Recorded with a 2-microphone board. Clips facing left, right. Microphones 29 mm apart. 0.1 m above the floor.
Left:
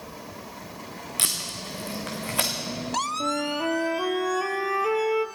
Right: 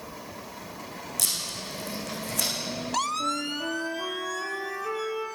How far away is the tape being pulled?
About 2 m.